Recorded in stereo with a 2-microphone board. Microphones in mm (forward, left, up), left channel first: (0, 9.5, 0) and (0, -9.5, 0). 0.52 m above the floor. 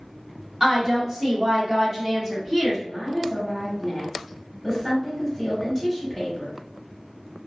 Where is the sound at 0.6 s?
25° right (ahead or behind), 1.4 m.